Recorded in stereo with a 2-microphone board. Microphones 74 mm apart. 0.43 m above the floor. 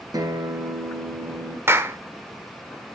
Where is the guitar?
55° right (ahead or behind), 2 m.